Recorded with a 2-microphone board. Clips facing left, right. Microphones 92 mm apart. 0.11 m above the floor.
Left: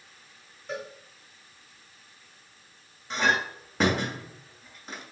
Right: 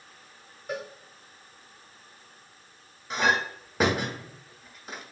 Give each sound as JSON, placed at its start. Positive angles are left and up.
{"t": 0.7, "sound": "a cowbell", "side_deg": -10, "distance_m": 1.4}
{"t": 3.1, "sound": "a clink", "side_deg": -5, "distance_m": 1.0}